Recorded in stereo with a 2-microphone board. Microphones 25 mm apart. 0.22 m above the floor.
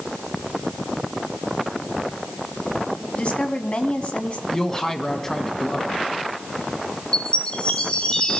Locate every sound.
3.1 s a woman speaking: 45° left (ahead or behind), 1.8 m
4.5 s a man speaking: 20° left (ahead or behind), 1.6 m
7.1 s a chime: 35° left (ahead or behind), 2 m